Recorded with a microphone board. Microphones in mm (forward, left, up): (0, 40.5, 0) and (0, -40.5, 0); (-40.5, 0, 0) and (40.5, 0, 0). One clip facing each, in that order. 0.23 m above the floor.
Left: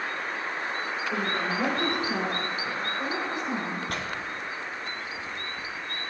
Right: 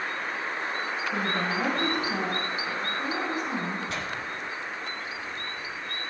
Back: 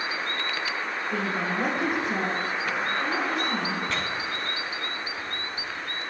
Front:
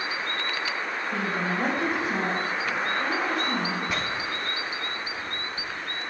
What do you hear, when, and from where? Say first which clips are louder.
1.1 s a woman speaking: even, even; 105° left, 3.5 m
3.9 s tearing paper: even, even; 80° left, 1.2 m